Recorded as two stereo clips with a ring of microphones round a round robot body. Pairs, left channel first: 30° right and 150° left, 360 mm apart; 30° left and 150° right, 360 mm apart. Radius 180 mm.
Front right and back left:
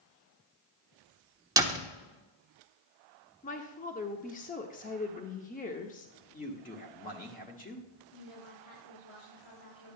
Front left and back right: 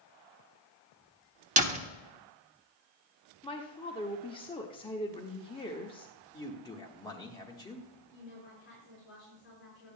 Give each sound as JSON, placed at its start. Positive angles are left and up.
{"t": 1.6, "sound": "a door slam", "azimuth_deg": -150, "distance_m": 0.9}
{"t": 3.4, "sound": "a woman speaking", "azimuth_deg": -20, "distance_m": 0.7}
{"t": 6.3, "sound": "a man speaking", "azimuth_deg": -30, "distance_m": 1.2}
{"t": 8.1, "sound": "a woman speaking", "azimuth_deg": -30, "distance_m": 4.5}